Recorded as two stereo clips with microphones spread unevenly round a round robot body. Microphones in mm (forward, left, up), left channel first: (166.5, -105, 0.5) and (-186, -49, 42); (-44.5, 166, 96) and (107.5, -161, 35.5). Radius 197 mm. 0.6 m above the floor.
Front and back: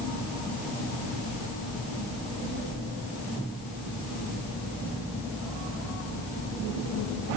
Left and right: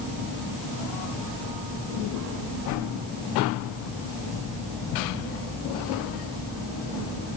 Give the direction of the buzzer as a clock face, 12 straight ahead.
No buzzer in this recording.